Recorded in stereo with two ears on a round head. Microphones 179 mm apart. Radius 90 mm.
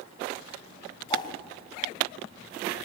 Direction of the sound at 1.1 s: 25° left (ahead or behind).